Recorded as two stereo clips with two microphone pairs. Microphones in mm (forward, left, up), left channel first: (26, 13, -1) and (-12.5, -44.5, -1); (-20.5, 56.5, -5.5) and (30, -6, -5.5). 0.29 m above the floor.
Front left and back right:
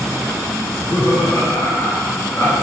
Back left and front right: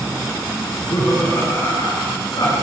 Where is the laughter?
80° left, 3.5 m; by 2.5 s 115° left, 3.5 m.